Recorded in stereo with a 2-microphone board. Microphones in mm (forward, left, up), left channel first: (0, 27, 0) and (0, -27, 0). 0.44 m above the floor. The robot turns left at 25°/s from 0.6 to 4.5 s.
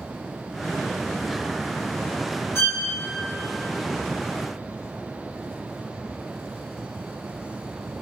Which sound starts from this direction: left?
A violin, at 2.5 s.